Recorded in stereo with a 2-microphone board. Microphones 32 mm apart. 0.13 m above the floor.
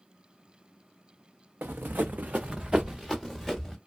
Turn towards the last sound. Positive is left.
turn(degrees=0)  # may be behind; listen again after turning